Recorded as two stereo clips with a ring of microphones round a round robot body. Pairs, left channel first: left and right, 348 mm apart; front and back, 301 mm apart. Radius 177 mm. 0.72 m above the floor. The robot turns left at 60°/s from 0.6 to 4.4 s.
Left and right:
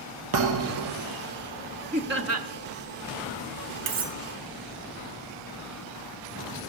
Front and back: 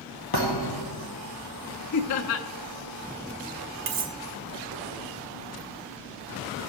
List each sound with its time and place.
0.3 s a thud: 45° right, 1.5 m; by 1.1 s 70° right, 1.5 m
1.9 s laughter: 20° right, 1.0 m; by 2.5 s 55° right, 1.0 m
3.9 s cutlery clinking: 150° right, 1.0 m; by 4.2 s 165° right, 1.0 m